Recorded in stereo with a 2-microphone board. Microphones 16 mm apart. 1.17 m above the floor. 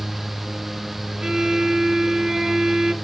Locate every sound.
1.2 s a violin: 60° right (ahead or behind), 2 m